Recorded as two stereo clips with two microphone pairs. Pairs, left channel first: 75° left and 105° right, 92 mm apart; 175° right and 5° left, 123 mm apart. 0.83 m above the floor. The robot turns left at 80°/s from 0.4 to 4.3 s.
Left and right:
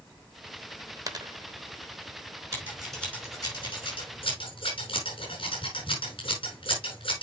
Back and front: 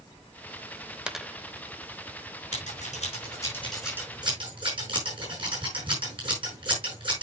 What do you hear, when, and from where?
1.1 s a dropped coin: 75° right, 0.7 m; by 1.3 s 95° right, 0.7 m
2.5 s scissors: 165° right, 6 m; by 7.2 s 55° left, 6 m